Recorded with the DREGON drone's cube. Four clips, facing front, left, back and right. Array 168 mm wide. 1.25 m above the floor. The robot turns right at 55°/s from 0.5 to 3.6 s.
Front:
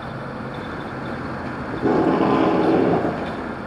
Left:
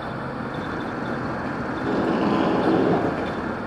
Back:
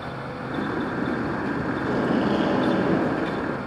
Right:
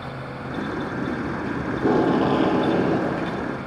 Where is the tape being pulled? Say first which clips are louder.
Right 4 dB, front 8 dB; 45° right, 2.5 m; by 3.2 s 40° left, 2.5 m.